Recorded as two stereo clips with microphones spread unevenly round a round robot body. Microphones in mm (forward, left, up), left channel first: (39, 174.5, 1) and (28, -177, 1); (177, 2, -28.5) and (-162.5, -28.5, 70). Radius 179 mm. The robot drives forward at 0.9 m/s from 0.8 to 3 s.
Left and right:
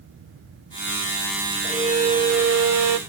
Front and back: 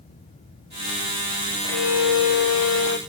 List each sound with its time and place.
1.6 s a violin: 20° right, 1.5 m; by 3.0 s 65° right, 0.5 m